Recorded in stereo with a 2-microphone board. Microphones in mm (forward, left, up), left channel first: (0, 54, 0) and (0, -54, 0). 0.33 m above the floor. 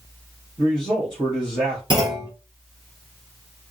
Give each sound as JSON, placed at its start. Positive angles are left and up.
{"t": 0.6, "sound": "a man speaking", "side_deg": -45, "distance_m": 3.0}
{"t": 1.9, "sound": "a clunk", "side_deg": -45, "distance_m": 3.0}